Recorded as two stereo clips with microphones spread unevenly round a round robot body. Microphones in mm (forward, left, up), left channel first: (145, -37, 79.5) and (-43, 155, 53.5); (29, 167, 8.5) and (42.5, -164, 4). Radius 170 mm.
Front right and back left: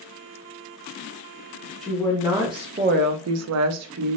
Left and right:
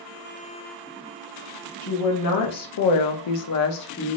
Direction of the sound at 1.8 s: 45° left.